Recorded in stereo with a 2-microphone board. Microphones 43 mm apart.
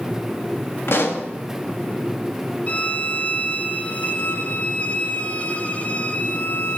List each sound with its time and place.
0.9 s a pop: 60° left (ahead or behind), 1.5 m
2.7 s a violin: 30° left (ahead or behind), 0.8 m